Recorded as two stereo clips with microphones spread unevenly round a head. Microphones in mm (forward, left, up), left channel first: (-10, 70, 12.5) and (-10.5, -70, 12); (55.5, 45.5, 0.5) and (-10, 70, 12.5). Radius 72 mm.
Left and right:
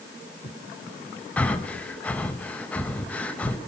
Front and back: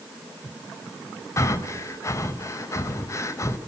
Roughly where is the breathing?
Ahead.